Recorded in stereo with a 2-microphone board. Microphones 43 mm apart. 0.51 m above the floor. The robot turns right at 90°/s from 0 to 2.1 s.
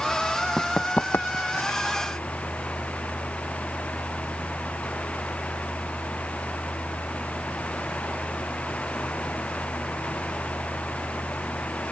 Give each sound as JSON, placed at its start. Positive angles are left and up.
{"t": 0.6, "sound": "running footsteps", "side_deg": 0}